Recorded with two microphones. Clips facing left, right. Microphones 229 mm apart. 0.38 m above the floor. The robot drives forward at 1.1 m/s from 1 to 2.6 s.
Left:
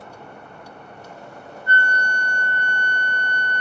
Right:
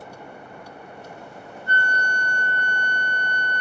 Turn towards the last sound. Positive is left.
turn(degrees=10)  # may be behind; listen again after turning